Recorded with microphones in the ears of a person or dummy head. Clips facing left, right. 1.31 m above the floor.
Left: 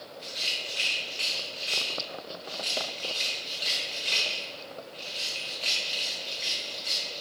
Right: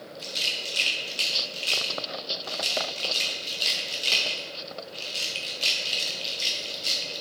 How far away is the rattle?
About 1.0 m.